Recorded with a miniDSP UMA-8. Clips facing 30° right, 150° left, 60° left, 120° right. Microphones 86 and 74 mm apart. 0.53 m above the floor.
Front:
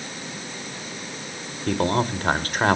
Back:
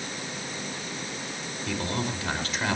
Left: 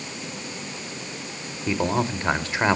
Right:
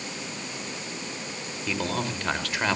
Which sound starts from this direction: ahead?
A man speaking, at 1.7 s.